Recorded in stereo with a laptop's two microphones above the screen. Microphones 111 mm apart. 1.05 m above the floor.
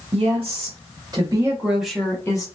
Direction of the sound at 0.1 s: 55° right (ahead or behind).